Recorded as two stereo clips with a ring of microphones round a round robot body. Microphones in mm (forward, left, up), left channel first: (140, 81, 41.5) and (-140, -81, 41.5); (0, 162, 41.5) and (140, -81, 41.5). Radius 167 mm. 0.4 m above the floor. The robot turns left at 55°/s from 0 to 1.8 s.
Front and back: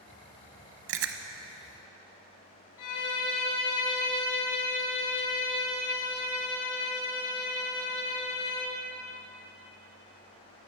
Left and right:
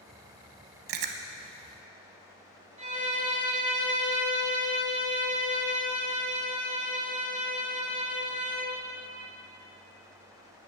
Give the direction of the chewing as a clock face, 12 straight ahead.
3 o'clock.